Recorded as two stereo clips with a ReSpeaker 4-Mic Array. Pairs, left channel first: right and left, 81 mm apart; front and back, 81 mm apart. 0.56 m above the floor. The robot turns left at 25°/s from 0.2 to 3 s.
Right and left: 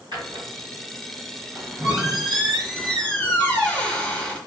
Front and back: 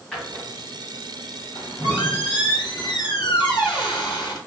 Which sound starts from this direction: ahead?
A squeak, at 1.6 s.